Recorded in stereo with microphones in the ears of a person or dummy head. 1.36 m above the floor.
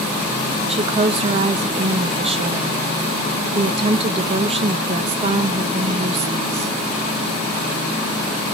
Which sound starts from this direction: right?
A woman speaking, at 0.7 s.